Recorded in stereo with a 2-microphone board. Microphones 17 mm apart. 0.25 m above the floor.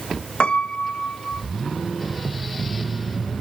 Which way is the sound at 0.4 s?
70° left (ahead or behind).